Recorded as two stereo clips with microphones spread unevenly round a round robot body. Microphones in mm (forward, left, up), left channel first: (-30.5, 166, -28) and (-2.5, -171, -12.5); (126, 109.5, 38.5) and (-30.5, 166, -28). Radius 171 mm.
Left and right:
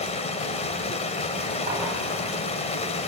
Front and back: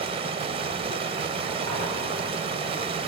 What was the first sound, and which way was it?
Running water, 160° left.